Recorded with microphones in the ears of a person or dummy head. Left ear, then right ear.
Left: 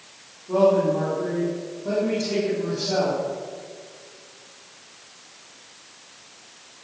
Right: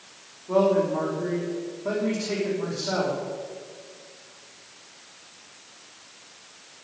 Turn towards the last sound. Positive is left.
turn(degrees=-50)  # may be behind; listen again after turning